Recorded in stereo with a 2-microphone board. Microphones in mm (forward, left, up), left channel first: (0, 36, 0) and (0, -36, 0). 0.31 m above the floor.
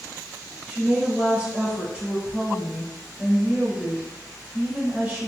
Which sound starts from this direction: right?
A woman speaking, at 0.7 s.